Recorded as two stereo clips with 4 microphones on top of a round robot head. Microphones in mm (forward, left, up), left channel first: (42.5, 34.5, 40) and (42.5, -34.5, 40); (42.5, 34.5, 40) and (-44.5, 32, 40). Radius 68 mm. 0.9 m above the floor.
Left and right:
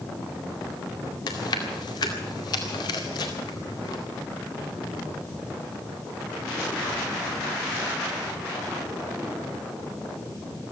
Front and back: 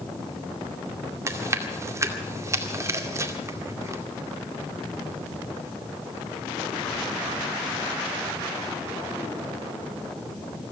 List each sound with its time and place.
1.3 s chewing: 125° left, 2 m